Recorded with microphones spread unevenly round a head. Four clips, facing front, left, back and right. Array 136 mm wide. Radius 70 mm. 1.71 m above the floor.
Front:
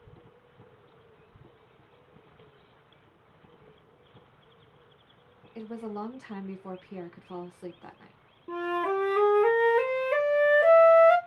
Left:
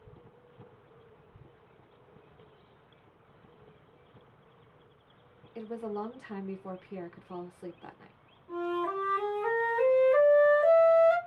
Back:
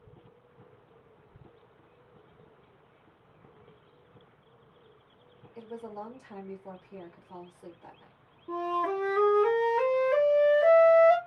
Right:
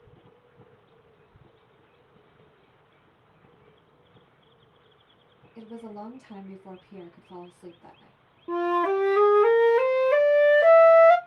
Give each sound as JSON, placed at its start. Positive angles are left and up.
{"t": 5.5, "sound": "a woman speaking", "azimuth_deg": 50, "distance_m": 0.9}
{"t": 8.5, "sound": "a flute", "azimuth_deg": -70, "distance_m": 0.6}